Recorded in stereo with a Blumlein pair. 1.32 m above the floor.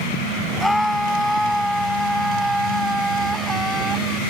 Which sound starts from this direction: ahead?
A scream, at 0.6 s.